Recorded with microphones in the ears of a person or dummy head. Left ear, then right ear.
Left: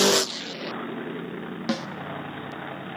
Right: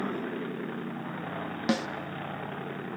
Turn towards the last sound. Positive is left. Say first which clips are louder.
# even
turn(degrees=-10)  # may be behind; listen again after turning